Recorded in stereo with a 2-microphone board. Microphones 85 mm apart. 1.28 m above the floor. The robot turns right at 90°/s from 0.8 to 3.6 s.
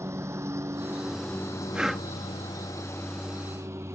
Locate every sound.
0.0 s a lawn mower: 30° right (ahead or behind); by 4.0 s 35° right (ahead or behind)
1.7 s breathing: 15° right (ahead or behind); by 2.1 s 15° left (ahead or behind)